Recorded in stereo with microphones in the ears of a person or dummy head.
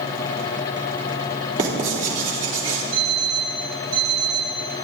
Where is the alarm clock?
75° right (ahead or behind), 7 m.